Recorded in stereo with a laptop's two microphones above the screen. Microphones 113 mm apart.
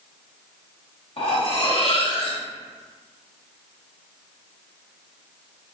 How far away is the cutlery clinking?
About 1.0 m.